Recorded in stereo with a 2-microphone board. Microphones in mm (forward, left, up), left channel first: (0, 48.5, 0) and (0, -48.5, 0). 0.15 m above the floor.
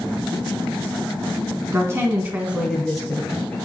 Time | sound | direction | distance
1.7 | a woman speaking | 30° right (ahead or behind) | 1.9 m